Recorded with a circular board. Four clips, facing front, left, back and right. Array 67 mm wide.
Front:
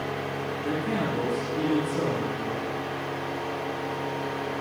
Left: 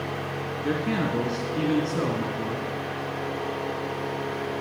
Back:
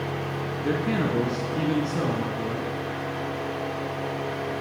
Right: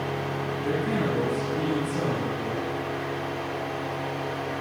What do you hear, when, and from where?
0.6 s a man speaking: 125° left, 1.2 m